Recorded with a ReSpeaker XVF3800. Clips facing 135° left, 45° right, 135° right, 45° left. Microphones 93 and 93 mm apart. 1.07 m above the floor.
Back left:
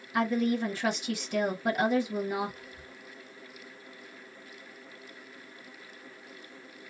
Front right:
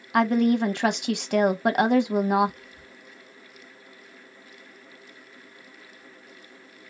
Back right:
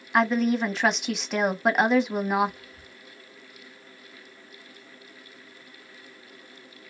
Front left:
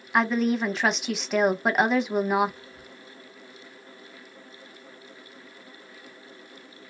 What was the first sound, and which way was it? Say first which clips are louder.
A woman speaking: front right 7 dB, back right 1 dB; 45° right.